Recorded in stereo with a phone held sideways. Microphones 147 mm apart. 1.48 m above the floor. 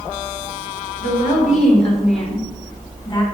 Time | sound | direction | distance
1.0 | a woman speaking | 60° left (ahead or behind) | 6.5 m